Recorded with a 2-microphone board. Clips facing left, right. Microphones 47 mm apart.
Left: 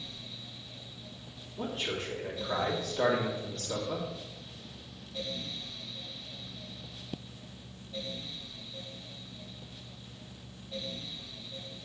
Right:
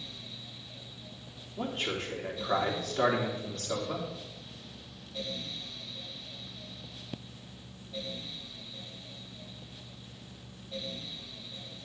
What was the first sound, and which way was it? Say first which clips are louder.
A man speaking: right 1 dB; 45° right (ahead or behind).